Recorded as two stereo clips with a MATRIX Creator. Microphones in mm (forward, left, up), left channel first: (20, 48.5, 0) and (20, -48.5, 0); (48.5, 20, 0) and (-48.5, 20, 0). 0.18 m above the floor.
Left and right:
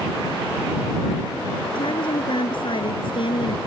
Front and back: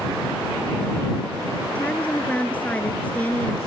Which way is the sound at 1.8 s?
75° left.